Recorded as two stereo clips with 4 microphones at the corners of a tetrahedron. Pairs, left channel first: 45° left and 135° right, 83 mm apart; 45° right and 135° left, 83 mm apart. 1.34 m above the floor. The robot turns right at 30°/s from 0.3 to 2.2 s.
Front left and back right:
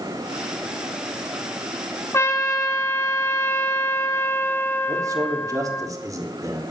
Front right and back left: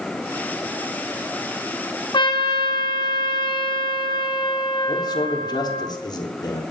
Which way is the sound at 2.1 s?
15° right.